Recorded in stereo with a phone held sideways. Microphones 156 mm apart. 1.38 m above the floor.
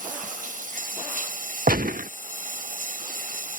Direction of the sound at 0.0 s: 60° right (ahead or behind).